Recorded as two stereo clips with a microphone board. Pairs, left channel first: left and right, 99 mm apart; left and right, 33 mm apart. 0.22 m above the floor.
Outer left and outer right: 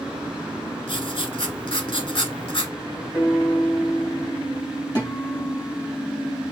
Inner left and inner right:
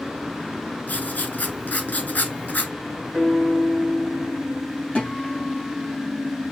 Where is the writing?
65° left (ahead or behind), 0.7 m.